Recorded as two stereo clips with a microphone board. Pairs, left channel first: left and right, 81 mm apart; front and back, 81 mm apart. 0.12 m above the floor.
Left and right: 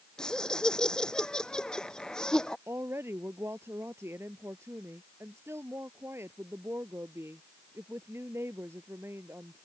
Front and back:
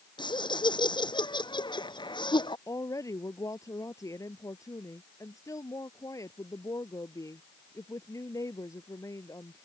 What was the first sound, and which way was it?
Laughter, 10° left.